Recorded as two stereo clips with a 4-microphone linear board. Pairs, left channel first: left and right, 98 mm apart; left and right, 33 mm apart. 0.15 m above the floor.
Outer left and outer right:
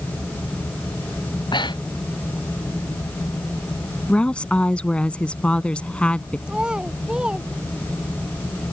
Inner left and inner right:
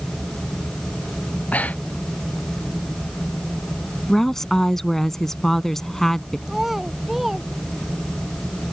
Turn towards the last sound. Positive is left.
turn(degrees=-10)  # may be behind; listen again after turning